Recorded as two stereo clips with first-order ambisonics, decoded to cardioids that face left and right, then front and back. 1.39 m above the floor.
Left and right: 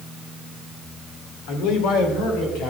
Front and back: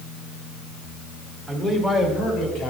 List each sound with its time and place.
1.5 s a man speaking: 85° left, 1.7 m; by 2.7 s 50° left, 3 m